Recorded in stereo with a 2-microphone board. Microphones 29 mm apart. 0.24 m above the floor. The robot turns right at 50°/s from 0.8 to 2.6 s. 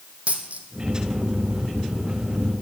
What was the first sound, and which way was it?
A dropped coin, 55° right (ahead or behind).